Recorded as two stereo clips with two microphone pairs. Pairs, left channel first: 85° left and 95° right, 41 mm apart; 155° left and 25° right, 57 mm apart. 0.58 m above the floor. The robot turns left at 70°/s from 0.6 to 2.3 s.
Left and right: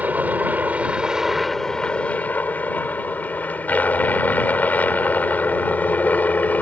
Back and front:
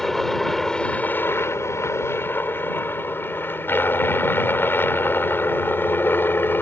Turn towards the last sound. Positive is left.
turn(degrees=115)